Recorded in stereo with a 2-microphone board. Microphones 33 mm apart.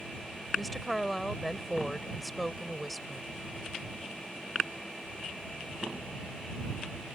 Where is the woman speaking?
5° left (ahead or behind).